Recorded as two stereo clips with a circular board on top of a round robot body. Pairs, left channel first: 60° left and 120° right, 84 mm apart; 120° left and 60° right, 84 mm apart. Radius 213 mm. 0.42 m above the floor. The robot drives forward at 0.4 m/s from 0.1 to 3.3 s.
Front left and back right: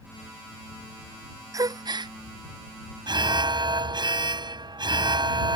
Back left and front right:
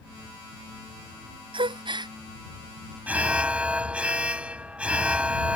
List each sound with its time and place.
1.5 s a gasp: 70° right; by 2.1 s 90° right
3.1 s an alarm: 130° right; by 5.6 s 135° right